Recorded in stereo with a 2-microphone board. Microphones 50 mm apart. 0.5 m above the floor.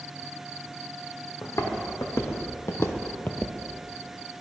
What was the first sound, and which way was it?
Footsteps, 75° left (ahead or behind).